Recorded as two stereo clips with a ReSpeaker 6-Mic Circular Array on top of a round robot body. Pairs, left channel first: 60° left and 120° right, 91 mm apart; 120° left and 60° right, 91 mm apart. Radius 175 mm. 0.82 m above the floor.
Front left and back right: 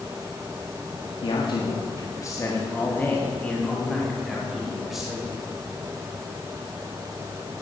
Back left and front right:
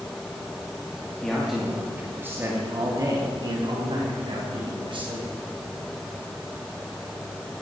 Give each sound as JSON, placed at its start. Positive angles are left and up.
{"t": 1.2, "sound": "a man speaking", "azimuth_deg": 35, "distance_m": 1.9}